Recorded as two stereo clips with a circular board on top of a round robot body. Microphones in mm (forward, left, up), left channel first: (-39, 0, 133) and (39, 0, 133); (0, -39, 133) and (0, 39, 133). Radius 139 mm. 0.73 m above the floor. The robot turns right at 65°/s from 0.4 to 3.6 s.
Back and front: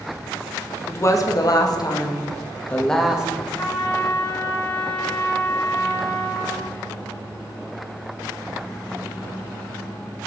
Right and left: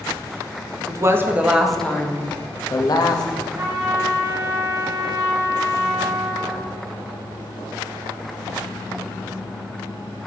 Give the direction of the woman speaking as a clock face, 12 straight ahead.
8 o'clock.